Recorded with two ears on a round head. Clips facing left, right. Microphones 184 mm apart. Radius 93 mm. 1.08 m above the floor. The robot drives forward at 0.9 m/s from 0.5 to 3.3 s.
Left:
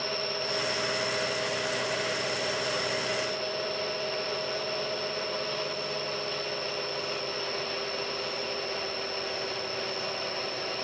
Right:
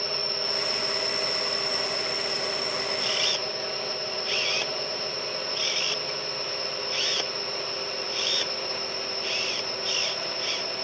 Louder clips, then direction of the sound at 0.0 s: Even; 70° right (ahead or behind).